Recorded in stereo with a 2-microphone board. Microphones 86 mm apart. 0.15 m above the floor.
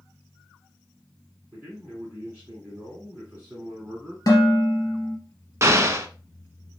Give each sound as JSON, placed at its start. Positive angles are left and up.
{"t": 1.5, "sound": "a man speaking", "side_deg": -20, "distance_m": 1.9}
{"t": 4.3, "sound": "dishes clattering", "side_deg": 45, "distance_m": 2.0}
{"t": 5.6, "sound": "an explosion", "side_deg": -35, "distance_m": 0.6}